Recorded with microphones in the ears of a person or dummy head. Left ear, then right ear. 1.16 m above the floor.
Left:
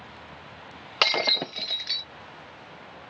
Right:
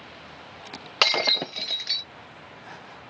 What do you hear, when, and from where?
1.0 s breaking glass: 5° right (ahead or behind)